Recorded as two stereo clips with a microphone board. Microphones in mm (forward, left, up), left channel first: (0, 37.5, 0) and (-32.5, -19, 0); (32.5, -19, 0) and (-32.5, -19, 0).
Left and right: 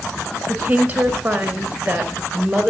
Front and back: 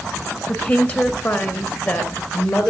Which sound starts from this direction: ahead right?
A woman speaking, at 0.5 s.